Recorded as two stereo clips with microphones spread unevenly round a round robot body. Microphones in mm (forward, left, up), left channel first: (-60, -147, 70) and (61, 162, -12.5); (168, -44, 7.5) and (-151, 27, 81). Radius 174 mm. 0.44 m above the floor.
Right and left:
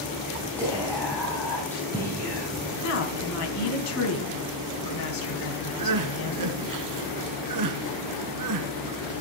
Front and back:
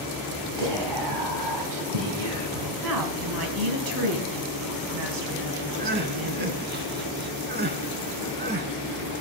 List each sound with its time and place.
0.6 s whispering: 160° left, 3.5 m
2.8 s a woman speaking: 160° right, 4 m
5.8 s crying: 105° left, 1.3 m